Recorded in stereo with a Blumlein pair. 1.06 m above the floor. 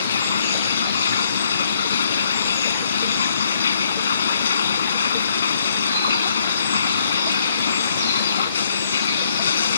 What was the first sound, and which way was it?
Running water, 70° left.